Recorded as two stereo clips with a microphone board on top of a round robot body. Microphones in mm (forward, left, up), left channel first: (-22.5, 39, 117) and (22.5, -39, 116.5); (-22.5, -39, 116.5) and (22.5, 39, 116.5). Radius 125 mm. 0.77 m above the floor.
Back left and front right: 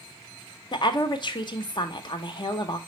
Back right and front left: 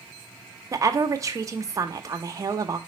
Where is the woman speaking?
105° left, 1.4 m.